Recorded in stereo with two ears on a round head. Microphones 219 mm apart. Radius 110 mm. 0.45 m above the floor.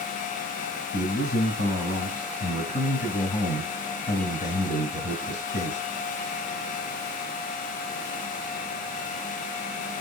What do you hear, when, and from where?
0.9 s a man speaking: 30° left (ahead or behind), 2.5 m